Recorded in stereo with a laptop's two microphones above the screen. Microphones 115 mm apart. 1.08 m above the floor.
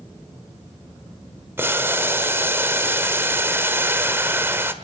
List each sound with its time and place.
1.6 s boiling: 20° right (ahead or behind), 1.3 m